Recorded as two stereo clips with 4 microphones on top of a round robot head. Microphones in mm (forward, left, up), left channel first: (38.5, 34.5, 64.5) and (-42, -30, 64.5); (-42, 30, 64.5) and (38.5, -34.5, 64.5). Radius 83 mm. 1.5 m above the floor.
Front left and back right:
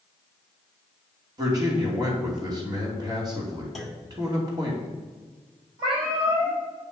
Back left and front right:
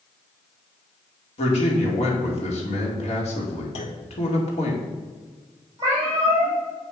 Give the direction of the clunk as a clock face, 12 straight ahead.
8 o'clock.